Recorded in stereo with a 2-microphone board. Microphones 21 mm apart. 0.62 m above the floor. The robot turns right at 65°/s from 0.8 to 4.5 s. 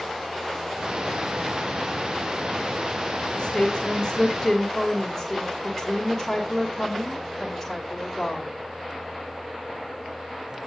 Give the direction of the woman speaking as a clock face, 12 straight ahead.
8 o'clock.